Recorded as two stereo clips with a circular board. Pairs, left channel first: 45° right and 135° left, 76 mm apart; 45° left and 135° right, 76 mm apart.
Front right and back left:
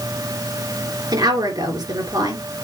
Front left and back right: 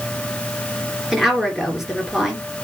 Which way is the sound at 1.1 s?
140° left.